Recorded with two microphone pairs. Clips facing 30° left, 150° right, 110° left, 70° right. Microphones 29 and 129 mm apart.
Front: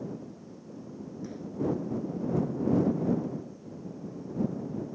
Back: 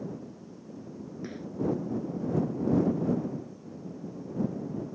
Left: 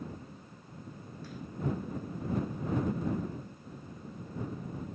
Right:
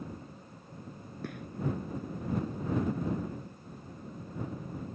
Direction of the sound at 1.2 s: 100° right.